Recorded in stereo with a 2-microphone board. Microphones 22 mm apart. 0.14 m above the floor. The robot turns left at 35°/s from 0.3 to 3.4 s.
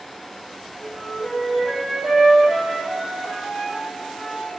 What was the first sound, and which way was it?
A flute, 25° right.